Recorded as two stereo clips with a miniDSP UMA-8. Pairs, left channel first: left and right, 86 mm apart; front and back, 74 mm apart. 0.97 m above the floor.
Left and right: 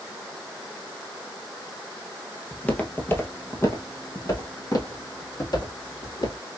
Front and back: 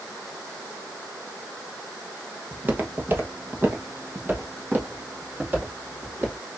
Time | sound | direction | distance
2.5 | footsteps | 155° left | 1.0 m